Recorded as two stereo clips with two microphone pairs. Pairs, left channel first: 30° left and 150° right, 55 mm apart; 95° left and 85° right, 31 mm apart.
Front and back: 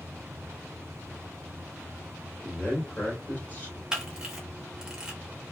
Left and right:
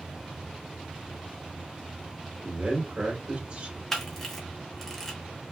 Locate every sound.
2.4 s a man speaking: 30° right, 1.8 m
3.9 s a camera shutter: 155° left, 1.1 m